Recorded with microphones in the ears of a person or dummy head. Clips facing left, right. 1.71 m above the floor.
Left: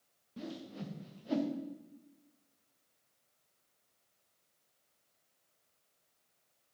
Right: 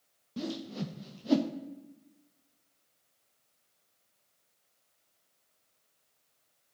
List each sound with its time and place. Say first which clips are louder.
0.4 s a whoosh: right 7 dB; 55° right (ahead or behind), 0.7 m